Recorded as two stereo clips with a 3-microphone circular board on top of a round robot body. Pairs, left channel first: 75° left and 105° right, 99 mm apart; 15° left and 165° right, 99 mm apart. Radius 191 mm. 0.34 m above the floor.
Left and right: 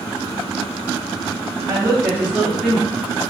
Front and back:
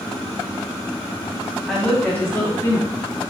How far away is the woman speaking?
About 0.9 m.